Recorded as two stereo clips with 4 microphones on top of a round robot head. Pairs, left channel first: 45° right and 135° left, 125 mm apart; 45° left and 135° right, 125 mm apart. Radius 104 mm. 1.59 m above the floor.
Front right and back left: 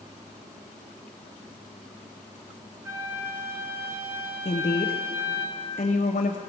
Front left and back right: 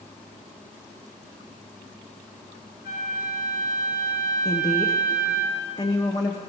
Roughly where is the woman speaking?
Ahead.